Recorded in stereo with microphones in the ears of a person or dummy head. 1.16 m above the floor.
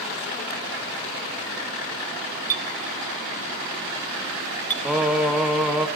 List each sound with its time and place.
2.5 s a clink: 10° left (ahead or behind), 0.6 m
4.8 s singing: 5° right (ahead or behind), 1.0 m